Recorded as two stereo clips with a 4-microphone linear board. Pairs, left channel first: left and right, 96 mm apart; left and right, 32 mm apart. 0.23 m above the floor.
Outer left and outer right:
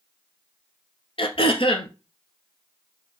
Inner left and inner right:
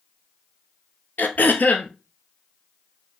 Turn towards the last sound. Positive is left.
turn(degrees=65)  # may be behind; listen again after turning